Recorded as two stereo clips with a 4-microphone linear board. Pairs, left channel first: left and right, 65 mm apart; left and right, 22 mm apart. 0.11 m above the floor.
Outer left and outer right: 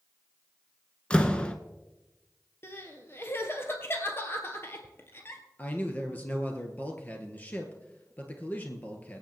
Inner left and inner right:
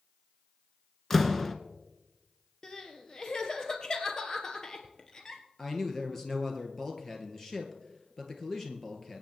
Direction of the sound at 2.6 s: 35° left (ahead or behind).